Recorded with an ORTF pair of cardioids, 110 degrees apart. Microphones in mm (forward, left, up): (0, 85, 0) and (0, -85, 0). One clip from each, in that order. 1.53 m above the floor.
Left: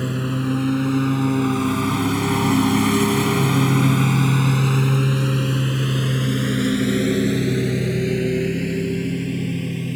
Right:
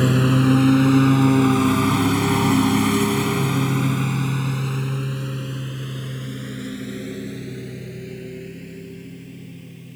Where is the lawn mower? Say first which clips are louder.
Right 6 dB; 35° right; by 10.0 s 75° left.